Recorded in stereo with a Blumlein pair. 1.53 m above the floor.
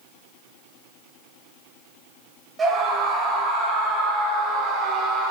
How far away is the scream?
About 4.5 m.